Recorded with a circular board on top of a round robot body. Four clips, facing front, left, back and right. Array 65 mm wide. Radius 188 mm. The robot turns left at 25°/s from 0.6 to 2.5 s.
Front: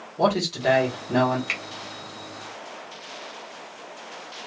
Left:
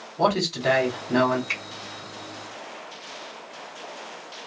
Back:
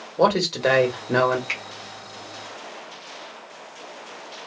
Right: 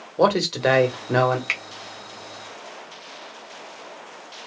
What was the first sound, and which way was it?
A man speaking, 115° right.